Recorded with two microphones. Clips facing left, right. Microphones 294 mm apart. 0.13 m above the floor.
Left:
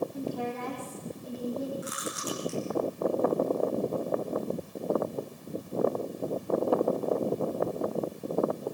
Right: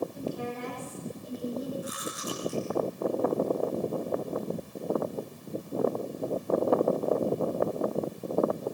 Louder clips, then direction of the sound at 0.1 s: Left 1 dB; 65° left (ahead or behind).